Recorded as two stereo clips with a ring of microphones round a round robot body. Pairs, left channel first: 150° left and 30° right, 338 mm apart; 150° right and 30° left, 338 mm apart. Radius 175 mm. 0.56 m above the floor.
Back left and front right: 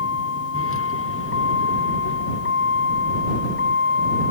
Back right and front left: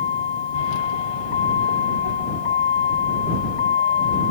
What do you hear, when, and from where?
0.0 s a vehicle: 155° right; by 4.3 s 150° right